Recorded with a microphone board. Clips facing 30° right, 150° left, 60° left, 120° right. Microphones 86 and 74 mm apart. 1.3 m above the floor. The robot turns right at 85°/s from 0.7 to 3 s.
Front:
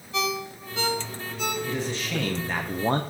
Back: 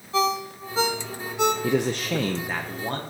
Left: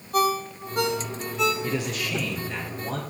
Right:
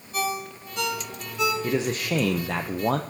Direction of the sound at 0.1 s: 95° left.